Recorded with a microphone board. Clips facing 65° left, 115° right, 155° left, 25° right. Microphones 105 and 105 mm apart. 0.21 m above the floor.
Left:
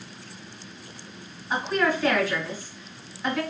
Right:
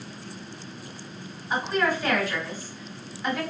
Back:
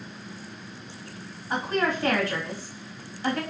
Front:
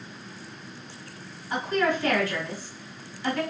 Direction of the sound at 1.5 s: 140° left.